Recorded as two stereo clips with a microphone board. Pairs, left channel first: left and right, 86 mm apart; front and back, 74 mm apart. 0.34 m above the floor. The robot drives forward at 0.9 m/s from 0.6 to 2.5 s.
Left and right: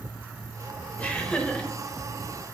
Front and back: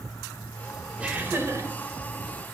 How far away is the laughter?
About 0.9 m.